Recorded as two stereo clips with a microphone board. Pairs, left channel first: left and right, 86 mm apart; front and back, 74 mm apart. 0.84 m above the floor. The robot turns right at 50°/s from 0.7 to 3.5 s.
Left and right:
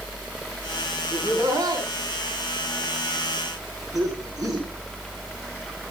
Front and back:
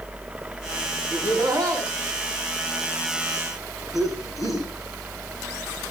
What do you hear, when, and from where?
1.1 s laughter: 170° right, 8 m; by 4.7 s 50° right, 8 m